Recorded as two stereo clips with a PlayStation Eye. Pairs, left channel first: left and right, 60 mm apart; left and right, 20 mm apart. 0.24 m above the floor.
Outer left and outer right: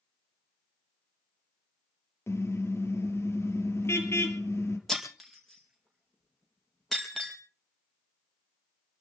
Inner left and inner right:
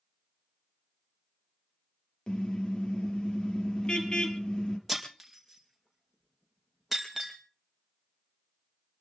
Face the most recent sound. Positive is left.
turn(degrees=5)  # may be behind; listen again after turning